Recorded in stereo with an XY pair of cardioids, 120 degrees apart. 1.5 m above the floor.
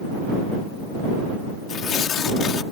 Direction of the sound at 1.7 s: 50° left.